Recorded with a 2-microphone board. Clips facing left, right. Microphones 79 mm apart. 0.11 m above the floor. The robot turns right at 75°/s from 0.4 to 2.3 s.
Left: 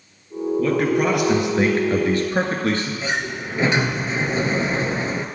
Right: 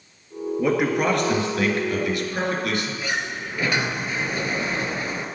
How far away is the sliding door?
About 0.8 m.